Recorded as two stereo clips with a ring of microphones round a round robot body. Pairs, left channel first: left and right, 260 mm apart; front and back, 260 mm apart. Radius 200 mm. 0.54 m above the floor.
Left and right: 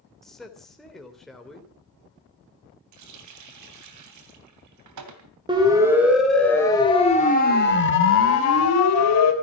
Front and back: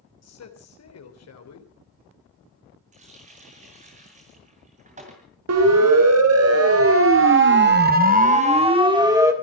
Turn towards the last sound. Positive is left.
turn(degrees=105)